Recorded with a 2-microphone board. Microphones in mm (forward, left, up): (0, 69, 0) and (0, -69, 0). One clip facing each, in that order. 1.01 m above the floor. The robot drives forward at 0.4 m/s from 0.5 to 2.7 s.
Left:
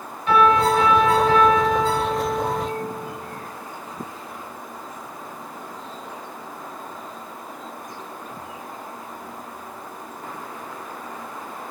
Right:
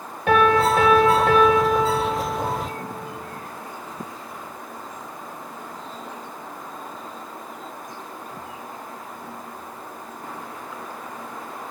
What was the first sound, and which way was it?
A piano, 70° right (ahead or behind).